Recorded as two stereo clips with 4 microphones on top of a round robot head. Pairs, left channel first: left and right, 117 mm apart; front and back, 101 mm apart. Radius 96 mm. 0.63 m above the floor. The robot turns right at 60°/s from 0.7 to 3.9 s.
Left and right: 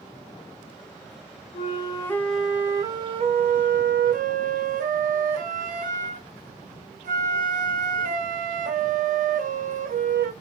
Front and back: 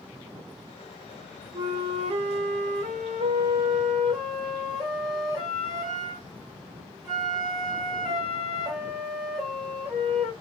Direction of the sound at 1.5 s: 130° left.